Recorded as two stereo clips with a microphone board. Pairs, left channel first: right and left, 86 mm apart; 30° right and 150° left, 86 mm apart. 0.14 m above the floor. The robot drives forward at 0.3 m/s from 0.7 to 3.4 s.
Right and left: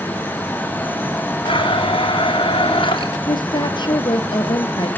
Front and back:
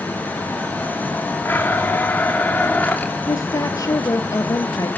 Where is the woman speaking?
75° right, 3 m.